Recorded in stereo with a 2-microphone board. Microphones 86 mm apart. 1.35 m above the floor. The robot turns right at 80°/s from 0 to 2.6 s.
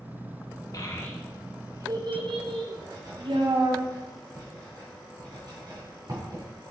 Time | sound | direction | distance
0.7 | a child speaking | 45° left (ahead or behind) | 1.0 m
2.8 | writing | 50° right (ahead or behind) | 3 m